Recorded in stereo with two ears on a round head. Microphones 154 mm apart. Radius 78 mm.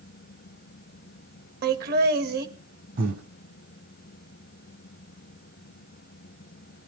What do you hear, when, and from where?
1.6 s laughter: 60° right (ahead or behind), 1.7 m
3.0 s breathing: 55° right (ahead or behind), 1.9 m